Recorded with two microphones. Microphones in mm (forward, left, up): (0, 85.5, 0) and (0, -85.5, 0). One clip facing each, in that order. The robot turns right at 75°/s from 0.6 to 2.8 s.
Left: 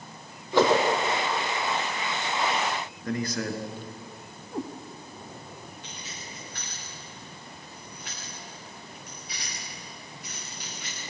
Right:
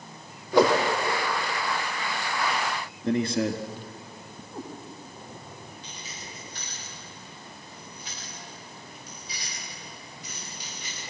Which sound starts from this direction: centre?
A whoosh, at 0.5 s.